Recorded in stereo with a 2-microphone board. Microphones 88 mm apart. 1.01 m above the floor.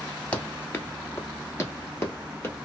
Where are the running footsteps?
15° left (ahead or behind), 1.1 m; by 2.6 s 25° left (ahead or behind), 1.7 m.